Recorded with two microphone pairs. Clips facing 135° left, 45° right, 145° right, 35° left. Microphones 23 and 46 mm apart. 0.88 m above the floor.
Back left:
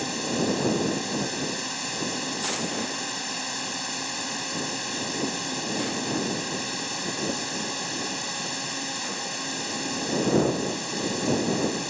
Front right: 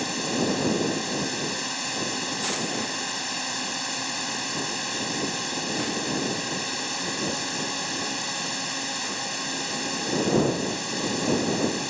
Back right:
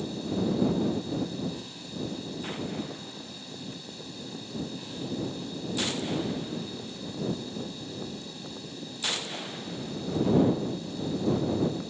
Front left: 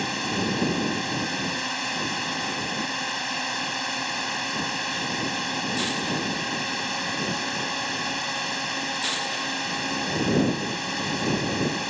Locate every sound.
0.0 s a drone: 40° left